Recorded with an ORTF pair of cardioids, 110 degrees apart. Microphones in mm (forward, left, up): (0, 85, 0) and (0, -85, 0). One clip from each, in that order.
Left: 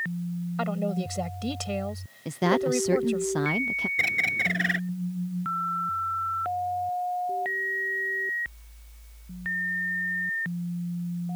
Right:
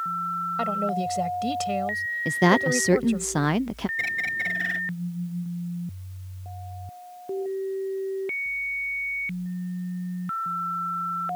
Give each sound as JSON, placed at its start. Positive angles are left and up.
{"t": 0.6, "sound": "a woman speaking", "azimuth_deg": -5}
{"t": 2.2, "sound": "a woman speaking", "azimuth_deg": -25}
{"t": 4.0, "sound": "a bird", "azimuth_deg": 30}